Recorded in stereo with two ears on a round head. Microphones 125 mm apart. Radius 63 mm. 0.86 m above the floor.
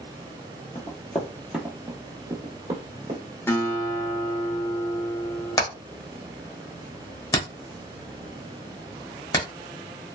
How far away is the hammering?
About 1.0 m.